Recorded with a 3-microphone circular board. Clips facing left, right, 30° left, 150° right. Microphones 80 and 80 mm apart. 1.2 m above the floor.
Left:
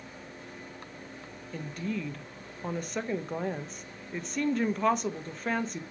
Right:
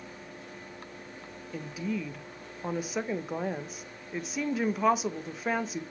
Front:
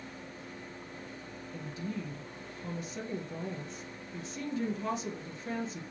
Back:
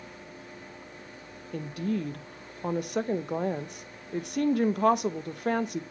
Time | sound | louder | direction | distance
1.5 | a woman speaking | right 1 dB, back 9 dB | 175° right | 0.8 m